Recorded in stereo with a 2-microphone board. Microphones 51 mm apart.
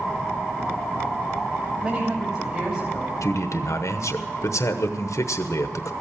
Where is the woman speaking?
35° right (ahead or behind), 3 m.